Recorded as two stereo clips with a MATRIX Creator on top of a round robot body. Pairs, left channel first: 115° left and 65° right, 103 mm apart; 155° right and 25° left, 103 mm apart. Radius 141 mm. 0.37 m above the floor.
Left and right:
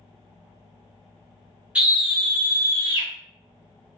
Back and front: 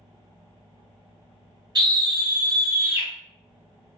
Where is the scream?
5° left, 1.4 m; by 3.1 s 85° left, 1.5 m.